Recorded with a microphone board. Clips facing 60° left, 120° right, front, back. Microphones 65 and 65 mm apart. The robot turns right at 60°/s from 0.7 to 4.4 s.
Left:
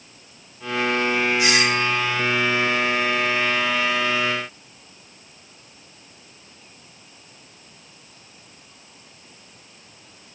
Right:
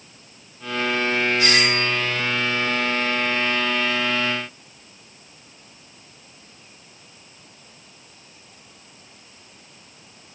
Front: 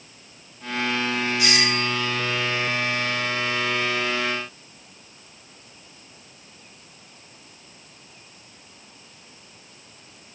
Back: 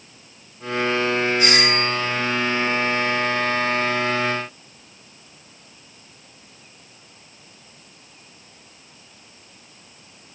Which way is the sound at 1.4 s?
130° left.